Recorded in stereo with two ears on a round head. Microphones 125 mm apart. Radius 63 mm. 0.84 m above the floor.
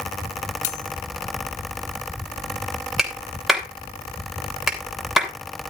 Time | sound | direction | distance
0.6 | cutlery clinking | 55° left (ahead or behind) | 1.0 m
3.0 | a clap | centre (ahead or behind) | 3.5 m